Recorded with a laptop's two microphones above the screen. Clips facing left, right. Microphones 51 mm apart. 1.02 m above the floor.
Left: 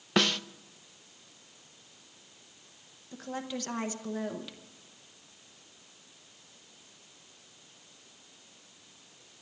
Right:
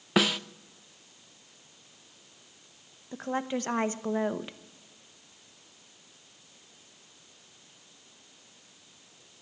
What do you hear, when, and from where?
0.2 s a snare drum: 10° right (ahead or behind), 0.5 m
3.1 s a woman speaking: 30° right (ahead or behind), 0.8 m